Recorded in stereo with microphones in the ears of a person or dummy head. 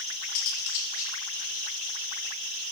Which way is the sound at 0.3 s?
55° left (ahead or behind).